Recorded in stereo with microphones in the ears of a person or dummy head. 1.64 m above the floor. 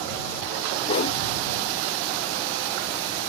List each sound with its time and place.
0.9 s a whoosh: 40° left (ahead or behind)